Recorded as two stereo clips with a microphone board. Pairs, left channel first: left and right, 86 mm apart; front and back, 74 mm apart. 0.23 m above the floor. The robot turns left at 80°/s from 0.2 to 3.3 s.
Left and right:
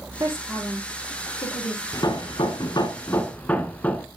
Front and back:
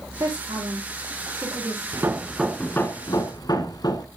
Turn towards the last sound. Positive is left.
turn(degrees=20)